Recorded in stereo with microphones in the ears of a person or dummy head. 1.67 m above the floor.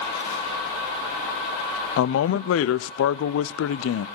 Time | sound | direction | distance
2.0 | a man speaking | 80° left | 0.6 m